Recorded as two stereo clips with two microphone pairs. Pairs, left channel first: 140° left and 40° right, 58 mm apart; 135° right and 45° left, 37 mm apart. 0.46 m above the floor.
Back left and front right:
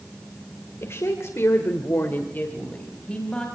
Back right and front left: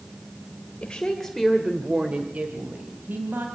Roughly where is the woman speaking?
Behind.